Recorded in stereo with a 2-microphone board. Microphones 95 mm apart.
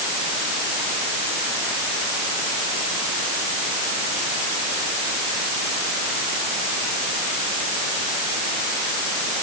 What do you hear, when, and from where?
Only background noise.